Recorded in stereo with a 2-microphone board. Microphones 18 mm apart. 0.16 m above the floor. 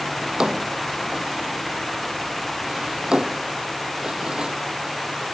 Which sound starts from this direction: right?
A drawer, at 0.2 s.